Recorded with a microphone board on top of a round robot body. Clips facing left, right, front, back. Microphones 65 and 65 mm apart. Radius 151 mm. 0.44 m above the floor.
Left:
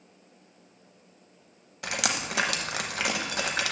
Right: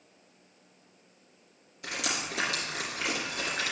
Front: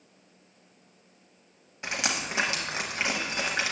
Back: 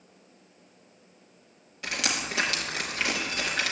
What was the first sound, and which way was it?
Dripping, 70° left.